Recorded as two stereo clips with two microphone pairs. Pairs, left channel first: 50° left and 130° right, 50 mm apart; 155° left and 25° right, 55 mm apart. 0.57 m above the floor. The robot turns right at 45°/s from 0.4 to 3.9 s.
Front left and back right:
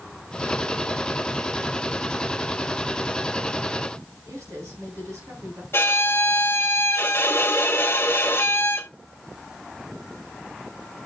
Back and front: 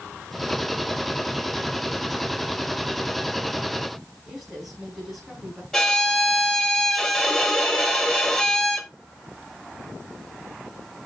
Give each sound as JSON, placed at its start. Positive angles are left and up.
{"t": 4.2, "sound": "a woman speaking", "azimuth_deg": -115, "distance_m": 6.0}
{"t": 5.7, "sound": "a violin", "azimuth_deg": 80, "distance_m": 1.6}